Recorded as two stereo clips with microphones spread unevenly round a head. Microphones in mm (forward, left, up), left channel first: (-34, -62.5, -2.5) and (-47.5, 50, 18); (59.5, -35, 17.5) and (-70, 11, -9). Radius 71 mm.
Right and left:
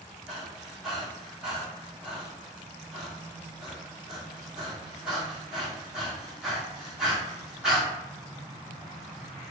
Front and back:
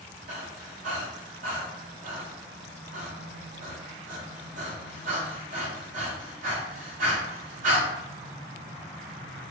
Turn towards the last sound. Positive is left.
turn(degrees=-175)